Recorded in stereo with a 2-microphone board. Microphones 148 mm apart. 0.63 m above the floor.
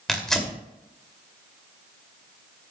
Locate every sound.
0.1 s tearing paper: 5° left (ahead or behind), 2.5 m